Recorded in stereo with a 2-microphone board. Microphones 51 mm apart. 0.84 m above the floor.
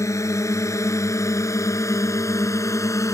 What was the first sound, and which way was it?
A drone, 80° left.